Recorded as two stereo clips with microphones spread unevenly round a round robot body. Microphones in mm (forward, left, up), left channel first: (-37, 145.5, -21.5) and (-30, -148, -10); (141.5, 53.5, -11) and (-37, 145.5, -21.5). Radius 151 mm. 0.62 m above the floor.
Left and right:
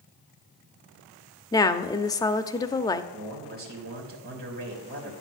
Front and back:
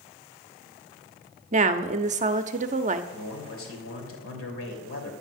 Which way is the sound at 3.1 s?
40° right.